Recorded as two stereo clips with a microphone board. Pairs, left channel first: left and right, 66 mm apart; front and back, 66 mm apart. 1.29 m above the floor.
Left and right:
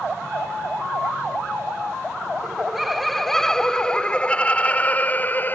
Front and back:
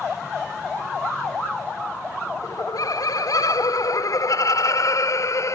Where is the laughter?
10° right; by 5.6 s 30° left.